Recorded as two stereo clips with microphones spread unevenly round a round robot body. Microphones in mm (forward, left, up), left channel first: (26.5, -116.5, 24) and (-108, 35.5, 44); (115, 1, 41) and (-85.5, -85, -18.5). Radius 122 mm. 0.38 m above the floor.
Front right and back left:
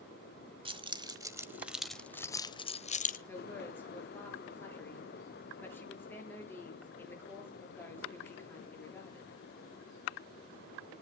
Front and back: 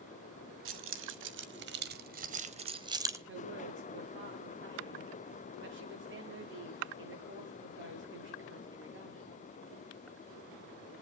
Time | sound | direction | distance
0.7 | keys jangling | 165° right | 1.7 m
3.3 | a woman speaking | 130° right | 9.5 m